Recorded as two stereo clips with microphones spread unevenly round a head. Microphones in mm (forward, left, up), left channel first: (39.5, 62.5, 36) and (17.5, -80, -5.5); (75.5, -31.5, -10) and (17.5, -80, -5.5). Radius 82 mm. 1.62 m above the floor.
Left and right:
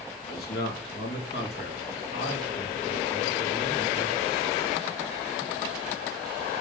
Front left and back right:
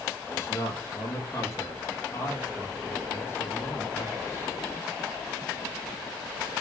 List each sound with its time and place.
0.3 s a man speaking: 115° left, 3.5 m